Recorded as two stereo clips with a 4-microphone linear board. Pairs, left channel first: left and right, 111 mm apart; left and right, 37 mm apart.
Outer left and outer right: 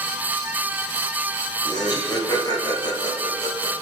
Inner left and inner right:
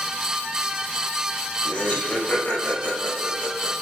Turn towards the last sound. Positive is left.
turn(degrees=40)  # may be behind; listen again after turning